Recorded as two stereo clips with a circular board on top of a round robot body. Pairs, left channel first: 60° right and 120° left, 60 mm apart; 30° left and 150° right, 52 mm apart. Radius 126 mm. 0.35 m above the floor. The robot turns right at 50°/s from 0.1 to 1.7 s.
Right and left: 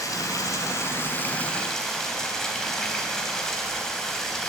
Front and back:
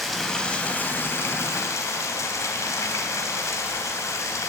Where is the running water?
60° right, 3 m; by 4.5 s 20° left, 3 m.